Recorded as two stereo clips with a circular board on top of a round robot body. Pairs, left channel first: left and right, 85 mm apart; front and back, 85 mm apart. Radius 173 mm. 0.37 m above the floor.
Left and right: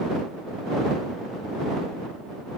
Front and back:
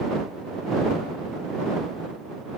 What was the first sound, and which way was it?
Only background noise.